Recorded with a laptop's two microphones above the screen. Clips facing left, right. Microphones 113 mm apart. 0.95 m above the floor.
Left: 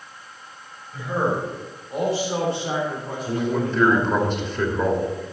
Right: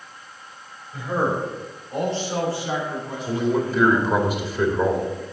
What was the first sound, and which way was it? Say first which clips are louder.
A man speaking: even; 10° right (ahead or behind).